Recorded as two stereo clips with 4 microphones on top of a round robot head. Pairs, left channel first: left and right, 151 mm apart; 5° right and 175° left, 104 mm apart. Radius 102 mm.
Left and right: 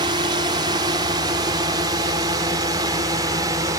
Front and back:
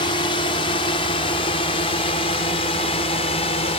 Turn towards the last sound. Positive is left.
turn(degrees=-20)